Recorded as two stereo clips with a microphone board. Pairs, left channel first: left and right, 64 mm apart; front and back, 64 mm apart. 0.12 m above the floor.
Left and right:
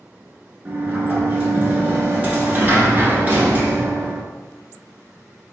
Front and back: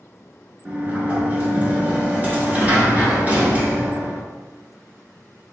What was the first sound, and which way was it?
A sliding door, 130° right.